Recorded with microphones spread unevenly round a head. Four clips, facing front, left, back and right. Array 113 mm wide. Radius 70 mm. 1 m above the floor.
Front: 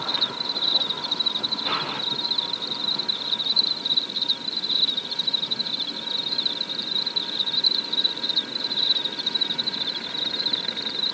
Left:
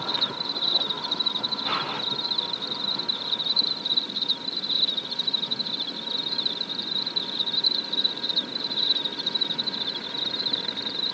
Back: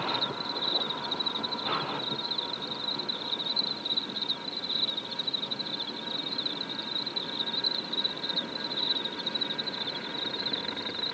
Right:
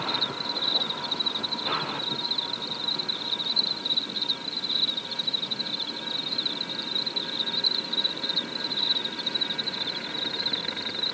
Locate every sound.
0.0 s an insect: 65° left